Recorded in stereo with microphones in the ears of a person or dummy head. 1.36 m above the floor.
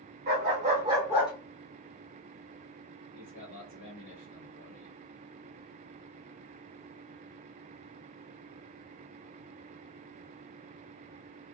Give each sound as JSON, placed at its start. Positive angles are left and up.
{"t": 0.3, "sound": "a dog barking", "side_deg": -50, "distance_m": 1.4}
{"t": 3.1, "sound": "a man speaking", "side_deg": 60, "distance_m": 1.1}